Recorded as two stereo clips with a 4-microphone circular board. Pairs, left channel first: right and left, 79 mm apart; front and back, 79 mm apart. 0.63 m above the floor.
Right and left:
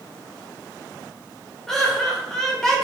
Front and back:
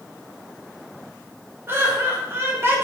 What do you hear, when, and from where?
1.7 s laughter: 170° right, 0.7 m